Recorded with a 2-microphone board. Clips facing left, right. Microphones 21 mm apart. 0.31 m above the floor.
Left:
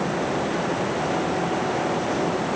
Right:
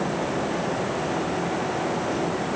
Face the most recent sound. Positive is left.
No sound to turn to.